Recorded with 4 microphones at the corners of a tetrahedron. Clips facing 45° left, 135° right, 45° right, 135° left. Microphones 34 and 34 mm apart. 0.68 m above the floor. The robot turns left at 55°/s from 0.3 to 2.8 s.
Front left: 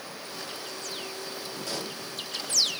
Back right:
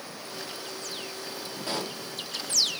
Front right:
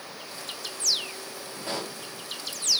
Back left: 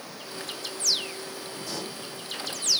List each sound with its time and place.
1.7 s a pop: 85° right, 1.4 m; by 2.0 s 105° right, 1.4 m